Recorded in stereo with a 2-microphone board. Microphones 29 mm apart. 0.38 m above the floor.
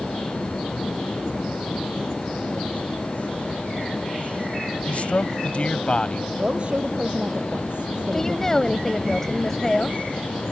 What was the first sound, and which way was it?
A man speaking, 50° left (ahead or behind).